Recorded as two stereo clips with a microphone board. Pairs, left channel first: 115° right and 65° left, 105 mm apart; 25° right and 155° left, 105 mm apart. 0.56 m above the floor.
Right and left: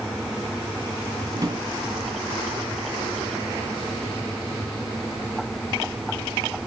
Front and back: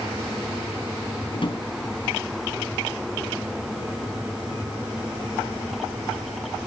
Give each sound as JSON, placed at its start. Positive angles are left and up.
{"t": 1.3, "sound": "a drawer", "azimuth_deg": 15, "distance_m": 2.5}